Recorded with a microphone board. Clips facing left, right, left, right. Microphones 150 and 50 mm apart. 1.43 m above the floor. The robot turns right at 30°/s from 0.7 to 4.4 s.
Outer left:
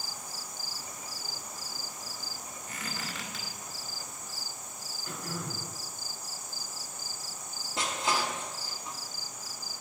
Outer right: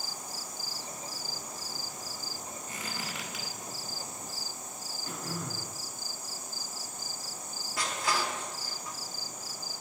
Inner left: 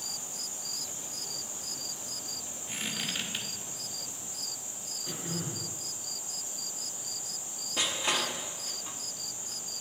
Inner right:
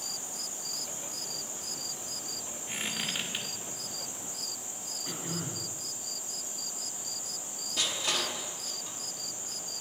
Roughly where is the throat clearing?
Right.